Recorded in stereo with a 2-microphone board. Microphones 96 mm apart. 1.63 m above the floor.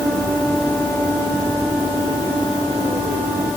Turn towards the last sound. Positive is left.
No sound to turn to.